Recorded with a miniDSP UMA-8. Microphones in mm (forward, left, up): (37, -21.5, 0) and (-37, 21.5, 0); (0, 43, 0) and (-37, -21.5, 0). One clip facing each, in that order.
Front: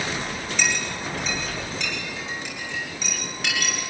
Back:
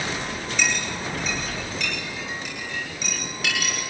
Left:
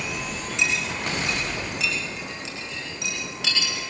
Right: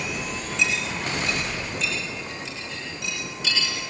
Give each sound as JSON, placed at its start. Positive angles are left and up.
{"t": 0.6, "sound": "a clink", "azimuth_deg": 60, "distance_m": 9.0}